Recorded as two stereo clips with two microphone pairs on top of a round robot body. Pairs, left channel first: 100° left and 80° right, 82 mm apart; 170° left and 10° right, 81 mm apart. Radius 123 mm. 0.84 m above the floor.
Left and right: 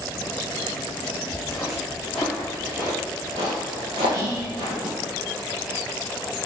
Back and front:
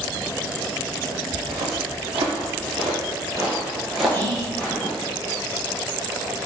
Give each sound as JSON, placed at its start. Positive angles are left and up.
{"t": 1.3, "sound": "footsteps", "azimuth_deg": 20, "distance_m": 2.0}
{"t": 4.1, "sound": "whispering", "azimuth_deg": -125, "distance_m": 3.0}